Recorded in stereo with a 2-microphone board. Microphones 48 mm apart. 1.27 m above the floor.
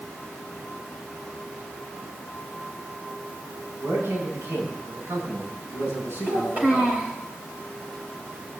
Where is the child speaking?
40° right (ahead or behind), 4 m.